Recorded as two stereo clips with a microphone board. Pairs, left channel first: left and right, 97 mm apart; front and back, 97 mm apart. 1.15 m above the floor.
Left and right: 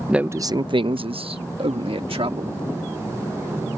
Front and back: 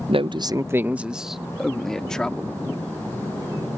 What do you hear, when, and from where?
0.1 s a man speaking: 175° right; by 2.6 s 80° right